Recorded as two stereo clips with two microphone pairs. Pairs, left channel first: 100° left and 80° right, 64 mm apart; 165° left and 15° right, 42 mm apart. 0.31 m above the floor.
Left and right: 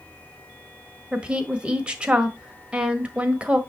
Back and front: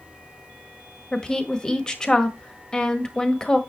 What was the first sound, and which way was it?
A woman speaking, 145° right.